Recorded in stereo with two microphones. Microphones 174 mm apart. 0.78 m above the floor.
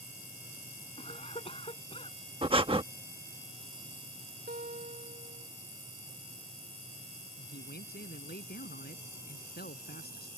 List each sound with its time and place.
1.0 s a cough: 35° left (ahead or behind)
2.4 s breathing: 30° right (ahead or behind)
4.5 s a guitar: 65° right (ahead or behind)
7.4 s a man speaking: 65° left (ahead or behind)